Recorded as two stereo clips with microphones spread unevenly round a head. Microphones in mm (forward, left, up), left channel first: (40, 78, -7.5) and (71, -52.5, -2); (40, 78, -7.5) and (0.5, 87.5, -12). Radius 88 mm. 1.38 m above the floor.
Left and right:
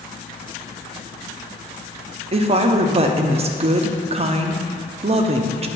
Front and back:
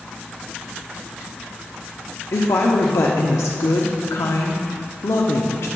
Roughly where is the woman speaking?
Ahead right.